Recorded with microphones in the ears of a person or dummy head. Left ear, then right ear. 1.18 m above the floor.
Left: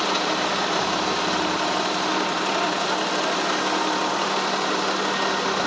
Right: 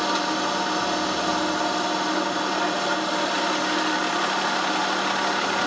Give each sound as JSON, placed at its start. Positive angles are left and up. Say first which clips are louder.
{"t": 0.0, "sound": "a machine running", "louder": "left 1 dB", "side_deg": 15, "distance_m": 1.6}